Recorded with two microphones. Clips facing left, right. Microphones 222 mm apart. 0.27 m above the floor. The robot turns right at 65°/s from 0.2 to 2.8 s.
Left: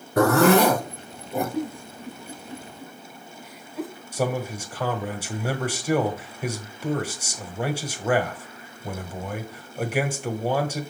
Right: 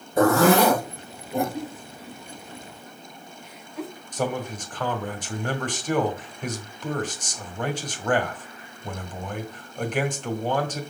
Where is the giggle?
60° left (ahead or behind), 1.7 m; by 3.9 s centre (ahead or behind), 1.7 m.